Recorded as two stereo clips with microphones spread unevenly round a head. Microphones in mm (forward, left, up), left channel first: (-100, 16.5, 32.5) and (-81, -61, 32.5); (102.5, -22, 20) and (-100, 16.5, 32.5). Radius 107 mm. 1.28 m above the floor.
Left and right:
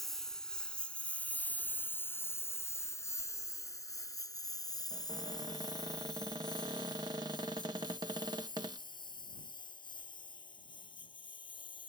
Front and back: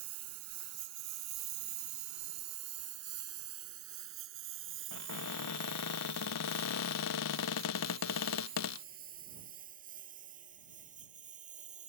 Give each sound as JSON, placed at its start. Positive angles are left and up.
{"t": 0.0, "sound": "a lawn mower", "azimuth_deg": -170}
{"t": 4.9, "sound": "a cupboard door", "azimuth_deg": -10}